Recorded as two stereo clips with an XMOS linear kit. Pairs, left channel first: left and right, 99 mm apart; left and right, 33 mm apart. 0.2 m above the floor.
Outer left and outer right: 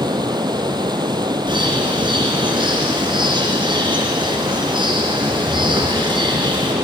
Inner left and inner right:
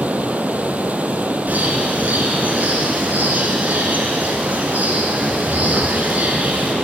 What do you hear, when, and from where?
0.0 s running water: 50° right (ahead or behind), 0.7 m
1.5 s a bird: 55° right (ahead or behind), 2 m